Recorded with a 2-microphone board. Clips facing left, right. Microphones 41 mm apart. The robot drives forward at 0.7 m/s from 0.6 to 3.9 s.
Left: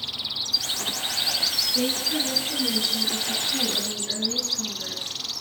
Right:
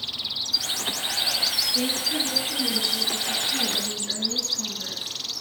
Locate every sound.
1.6 s a woman speaking: 5° right (ahead or behind), 9 m